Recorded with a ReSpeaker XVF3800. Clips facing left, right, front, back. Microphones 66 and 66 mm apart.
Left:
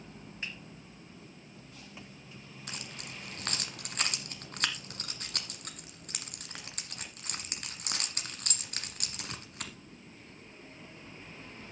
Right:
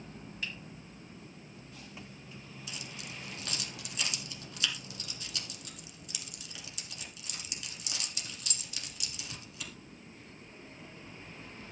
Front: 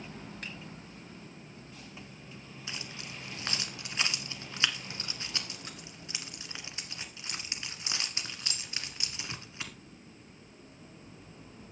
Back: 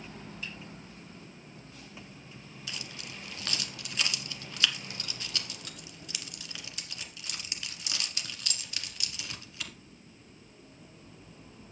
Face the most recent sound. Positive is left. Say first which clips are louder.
# left 1 dB, even
turn(degrees=60)